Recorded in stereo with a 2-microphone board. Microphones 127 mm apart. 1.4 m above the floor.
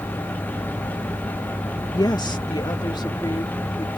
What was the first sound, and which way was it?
A woman speaking, 35° left (ahead or behind).